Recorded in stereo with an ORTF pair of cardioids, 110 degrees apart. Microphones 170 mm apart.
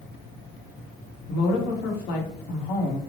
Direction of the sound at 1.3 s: 70° left.